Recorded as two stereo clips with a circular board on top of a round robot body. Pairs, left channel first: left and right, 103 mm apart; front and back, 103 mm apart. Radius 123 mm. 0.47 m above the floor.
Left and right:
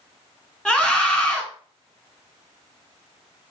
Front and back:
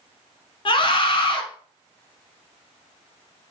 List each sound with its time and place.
0.7 s a scream: 10° left, 1.5 m